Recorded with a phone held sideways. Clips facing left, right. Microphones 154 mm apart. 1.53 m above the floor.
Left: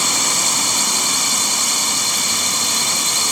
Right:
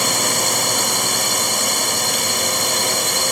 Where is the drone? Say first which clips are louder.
Right 3 dB; 55° right (ahead or behind).